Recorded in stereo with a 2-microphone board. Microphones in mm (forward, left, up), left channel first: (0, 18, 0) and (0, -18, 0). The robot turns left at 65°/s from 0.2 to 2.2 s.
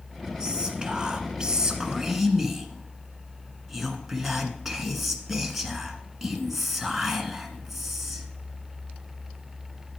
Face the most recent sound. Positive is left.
turn(degrees=-5)  # may be behind; listen again after turning